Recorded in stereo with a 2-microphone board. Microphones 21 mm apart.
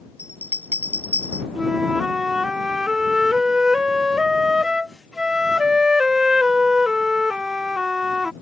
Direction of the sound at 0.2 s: 85° right.